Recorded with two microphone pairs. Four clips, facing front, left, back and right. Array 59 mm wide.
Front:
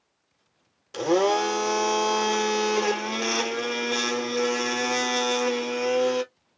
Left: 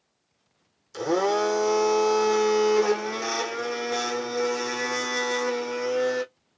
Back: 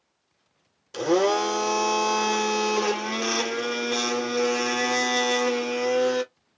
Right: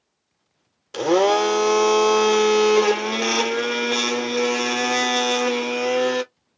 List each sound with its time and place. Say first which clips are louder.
0.9 s a blender: right 6 dB, even; 85° right, 0.7 m